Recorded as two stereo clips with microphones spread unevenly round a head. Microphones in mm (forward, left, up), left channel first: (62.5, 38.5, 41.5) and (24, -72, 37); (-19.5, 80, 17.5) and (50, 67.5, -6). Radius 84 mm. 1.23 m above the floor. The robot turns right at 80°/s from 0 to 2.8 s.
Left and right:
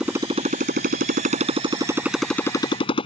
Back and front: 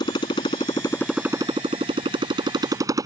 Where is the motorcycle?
165° left; by 3.1 s 30° left.